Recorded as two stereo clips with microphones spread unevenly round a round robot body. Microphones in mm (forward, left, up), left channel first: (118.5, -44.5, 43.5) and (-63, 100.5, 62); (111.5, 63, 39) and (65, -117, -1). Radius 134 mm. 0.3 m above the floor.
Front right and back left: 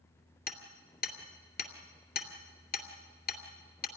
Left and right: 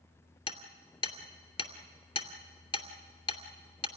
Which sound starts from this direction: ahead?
Hammering, at 0.5 s.